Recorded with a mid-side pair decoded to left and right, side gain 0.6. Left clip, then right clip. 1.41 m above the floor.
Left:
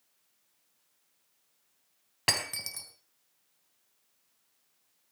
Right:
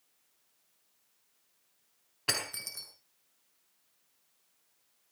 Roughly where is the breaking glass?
Ahead left.